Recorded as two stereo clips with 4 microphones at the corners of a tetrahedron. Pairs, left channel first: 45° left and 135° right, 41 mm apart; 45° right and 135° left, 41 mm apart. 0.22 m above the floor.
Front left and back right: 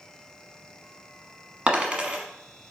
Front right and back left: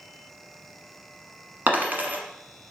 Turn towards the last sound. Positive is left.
turn(degrees=165)